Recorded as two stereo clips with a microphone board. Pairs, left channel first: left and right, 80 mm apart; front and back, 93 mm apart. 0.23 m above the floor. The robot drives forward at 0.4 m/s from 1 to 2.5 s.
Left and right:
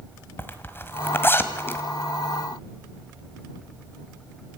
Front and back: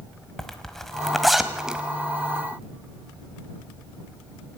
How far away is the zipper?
About 1.5 m.